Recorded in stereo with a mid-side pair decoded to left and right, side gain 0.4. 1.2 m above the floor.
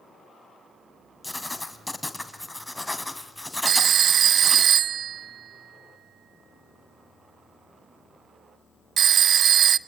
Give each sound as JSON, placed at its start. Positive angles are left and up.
{"t": 1.2, "sound": "writing", "azimuth_deg": 10, "distance_m": 2.5}
{"t": 3.6, "sound": "a phone ringing", "azimuth_deg": -65, "distance_m": 0.6}